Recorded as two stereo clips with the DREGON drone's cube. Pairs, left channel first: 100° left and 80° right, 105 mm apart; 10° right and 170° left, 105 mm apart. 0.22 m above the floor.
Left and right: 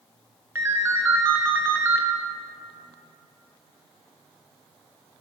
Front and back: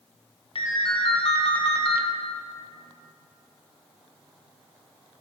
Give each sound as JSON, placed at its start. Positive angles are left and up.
{"t": 0.6, "sound": "a ringtone", "azimuth_deg": -15, "distance_m": 1.2}